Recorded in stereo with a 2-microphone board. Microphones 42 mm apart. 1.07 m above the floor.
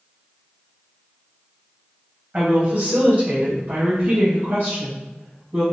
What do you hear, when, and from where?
2.3 s a woman speaking: 35° right (ahead or behind), 1.3 m; by 5.6 s 60° right (ahead or behind), 1.4 m